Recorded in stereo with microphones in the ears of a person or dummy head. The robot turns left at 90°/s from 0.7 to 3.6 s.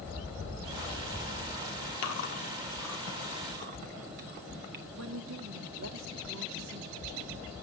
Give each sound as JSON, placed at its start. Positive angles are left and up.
{"t": 2.0, "sound": "chewing", "side_deg": 80, "distance_m": 2.5}
{"t": 4.9, "sound": "a woman speaking", "side_deg": -75, "distance_m": 2.5}